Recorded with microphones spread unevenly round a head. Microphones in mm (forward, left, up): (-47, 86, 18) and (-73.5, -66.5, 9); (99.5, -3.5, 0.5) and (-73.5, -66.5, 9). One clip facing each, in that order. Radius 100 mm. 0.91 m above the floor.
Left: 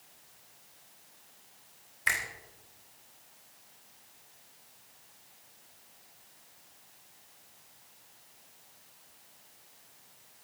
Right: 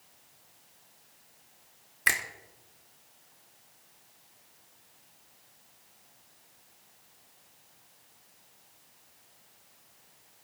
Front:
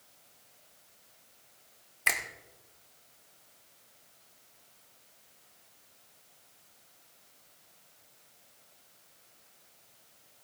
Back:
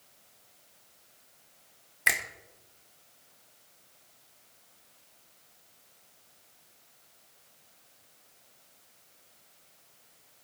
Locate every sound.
2.1 s a finger snap: 80° right, 2.5 m